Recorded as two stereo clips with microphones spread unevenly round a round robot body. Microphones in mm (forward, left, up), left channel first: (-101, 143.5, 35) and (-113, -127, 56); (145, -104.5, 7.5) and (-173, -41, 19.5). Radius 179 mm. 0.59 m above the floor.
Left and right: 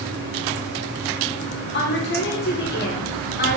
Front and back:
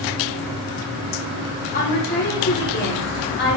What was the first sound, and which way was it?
A woman speaking, 45° left.